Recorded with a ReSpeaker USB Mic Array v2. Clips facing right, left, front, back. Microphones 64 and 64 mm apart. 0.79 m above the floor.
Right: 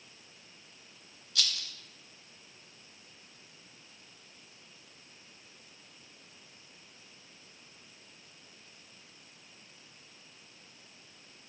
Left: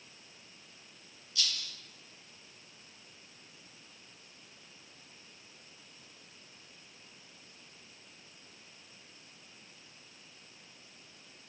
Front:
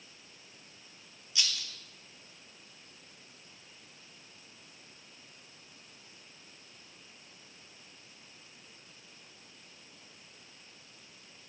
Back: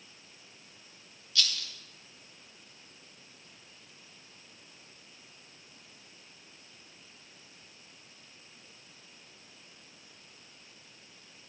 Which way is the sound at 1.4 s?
70° right.